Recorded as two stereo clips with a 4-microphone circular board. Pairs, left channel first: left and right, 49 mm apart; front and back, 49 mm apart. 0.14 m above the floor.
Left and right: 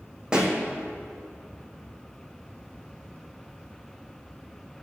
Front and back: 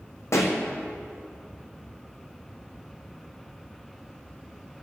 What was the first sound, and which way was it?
A pop, 15° right.